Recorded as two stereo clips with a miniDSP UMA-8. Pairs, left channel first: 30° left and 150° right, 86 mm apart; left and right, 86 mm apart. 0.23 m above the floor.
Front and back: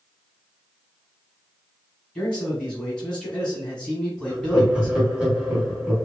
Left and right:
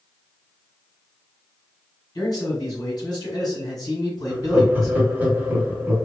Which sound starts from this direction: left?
A man speaking, at 2.1 s.